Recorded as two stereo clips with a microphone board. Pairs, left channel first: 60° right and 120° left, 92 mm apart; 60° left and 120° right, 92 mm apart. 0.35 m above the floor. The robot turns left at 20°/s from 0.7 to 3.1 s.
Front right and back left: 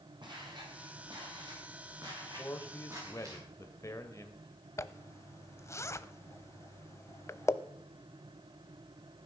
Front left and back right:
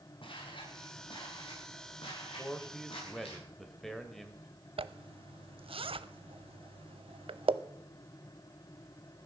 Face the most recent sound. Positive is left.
turn(degrees=-115)